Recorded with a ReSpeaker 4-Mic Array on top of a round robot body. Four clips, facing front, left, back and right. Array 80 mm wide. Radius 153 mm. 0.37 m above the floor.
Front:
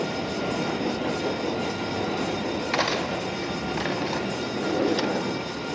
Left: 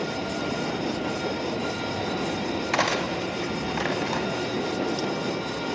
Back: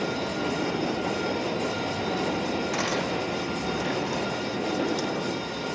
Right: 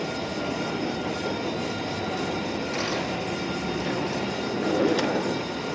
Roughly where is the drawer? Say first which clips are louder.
Right 8 dB, front 5 dB; ahead right.